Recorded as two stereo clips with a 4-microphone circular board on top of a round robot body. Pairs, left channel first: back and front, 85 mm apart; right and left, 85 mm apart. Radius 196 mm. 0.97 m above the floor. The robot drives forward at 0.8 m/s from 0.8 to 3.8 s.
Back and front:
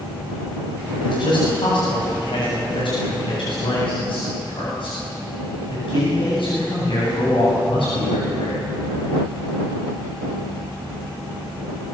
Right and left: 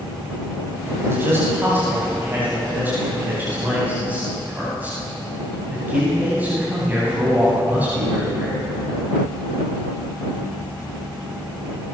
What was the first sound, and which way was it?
A man speaking, 155° left.